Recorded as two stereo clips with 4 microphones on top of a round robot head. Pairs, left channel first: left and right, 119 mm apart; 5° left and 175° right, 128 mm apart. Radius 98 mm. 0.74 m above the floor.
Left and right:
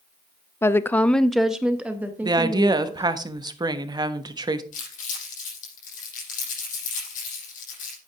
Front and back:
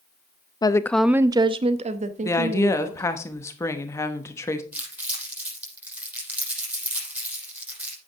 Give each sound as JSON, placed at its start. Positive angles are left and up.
{"t": 0.6, "sound": "a woman speaking", "azimuth_deg": 35, "distance_m": 0.6}
{"t": 2.2, "sound": "a woman speaking", "azimuth_deg": -55, "distance_m": 1.2}
{"t": 4.7, "sound": "crumpling", "azimuth_deg": 110, "distance_m": 6.5}